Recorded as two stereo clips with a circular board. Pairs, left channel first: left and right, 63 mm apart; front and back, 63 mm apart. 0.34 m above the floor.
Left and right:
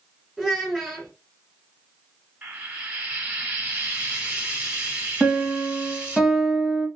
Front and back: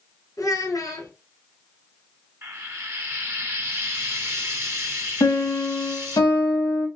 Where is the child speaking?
5° right, 1.3 m.